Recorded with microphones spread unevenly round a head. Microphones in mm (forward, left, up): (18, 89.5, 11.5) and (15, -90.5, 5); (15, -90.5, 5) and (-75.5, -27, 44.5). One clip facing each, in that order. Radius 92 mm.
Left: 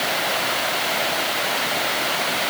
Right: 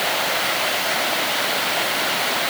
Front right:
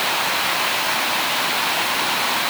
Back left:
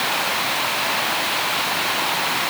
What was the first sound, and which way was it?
Only background noise.